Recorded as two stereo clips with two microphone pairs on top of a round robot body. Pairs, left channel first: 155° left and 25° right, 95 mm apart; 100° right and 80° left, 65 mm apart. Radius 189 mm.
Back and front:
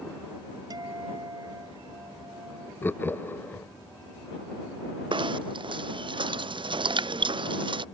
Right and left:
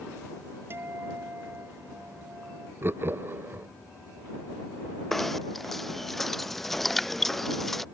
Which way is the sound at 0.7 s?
25° left.